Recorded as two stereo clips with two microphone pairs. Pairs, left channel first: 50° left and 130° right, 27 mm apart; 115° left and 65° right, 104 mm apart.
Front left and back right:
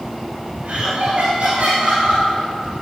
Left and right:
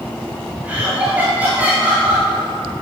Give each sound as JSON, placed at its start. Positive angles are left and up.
{"t": 0.6, "sound": "laughter", "azimuth_deg": -140, "distance_m": 2.0}